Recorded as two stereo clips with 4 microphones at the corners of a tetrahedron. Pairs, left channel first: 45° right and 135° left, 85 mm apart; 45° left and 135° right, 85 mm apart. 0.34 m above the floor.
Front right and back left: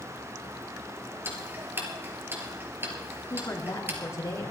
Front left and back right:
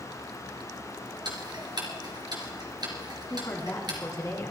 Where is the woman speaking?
5° left, 3 m.